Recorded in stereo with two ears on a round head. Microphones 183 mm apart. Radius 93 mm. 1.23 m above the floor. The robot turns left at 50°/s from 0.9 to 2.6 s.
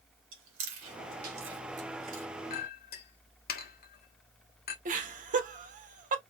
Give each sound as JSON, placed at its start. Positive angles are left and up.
{"t": 0.3, "sound": "chewing", "side_deg": -65, "distance_m": 2.0}
{"t": 2.5, "sound": "a clink", "side_deg": 45, "distance_m": 1.2}
{"t": 4.8, "sound": "laughter", "side_deg": -40, "distance_m": 1.3}